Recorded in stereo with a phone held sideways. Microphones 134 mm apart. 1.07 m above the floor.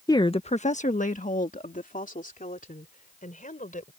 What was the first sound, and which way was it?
A woman speaking, 25° left (ahead or behind).